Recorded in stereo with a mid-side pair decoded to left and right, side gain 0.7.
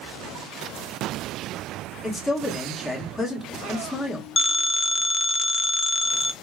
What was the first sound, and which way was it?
A man speaking, 10° left.